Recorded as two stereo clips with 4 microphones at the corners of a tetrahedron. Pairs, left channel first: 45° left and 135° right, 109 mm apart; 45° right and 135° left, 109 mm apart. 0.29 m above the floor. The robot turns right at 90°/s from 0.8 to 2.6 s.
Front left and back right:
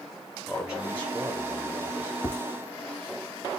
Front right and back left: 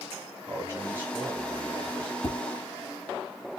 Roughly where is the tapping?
Ahead right.